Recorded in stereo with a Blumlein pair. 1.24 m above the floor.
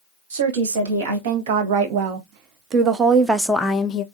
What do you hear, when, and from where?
0.3 s a woman speaking: 60° right, 2.0 m; by 4.0 s 30° left, 0.6 m